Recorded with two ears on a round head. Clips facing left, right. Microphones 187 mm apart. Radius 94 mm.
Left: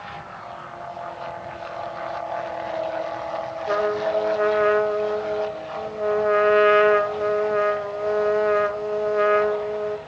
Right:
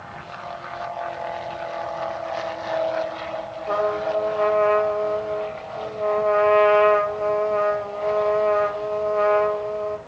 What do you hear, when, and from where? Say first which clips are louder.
3.7 s a trumpet: even; 15° left (ahead or behind), 0.5 m